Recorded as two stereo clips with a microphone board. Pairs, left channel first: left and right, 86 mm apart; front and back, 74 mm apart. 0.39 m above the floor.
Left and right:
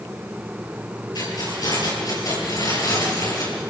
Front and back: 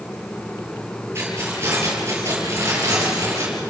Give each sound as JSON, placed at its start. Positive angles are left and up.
{"t": 1.1, "sound": "keys jangling", "azimuth_deg": 125, "distance_m": 7.0}